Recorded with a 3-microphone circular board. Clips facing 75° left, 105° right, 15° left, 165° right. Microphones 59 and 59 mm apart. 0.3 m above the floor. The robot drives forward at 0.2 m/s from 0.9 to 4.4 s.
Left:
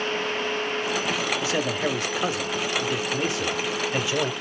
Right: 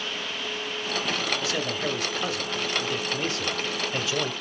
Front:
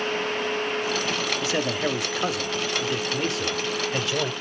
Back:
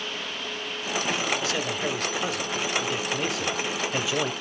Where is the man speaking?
35° left, 1.0 m; by 4.3 s 140° left, 1.0 m.